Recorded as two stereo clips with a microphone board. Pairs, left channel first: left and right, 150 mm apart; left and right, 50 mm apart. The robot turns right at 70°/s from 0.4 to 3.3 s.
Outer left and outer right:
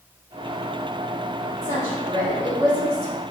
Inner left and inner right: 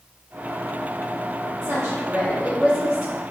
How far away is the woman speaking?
About 1.6 m.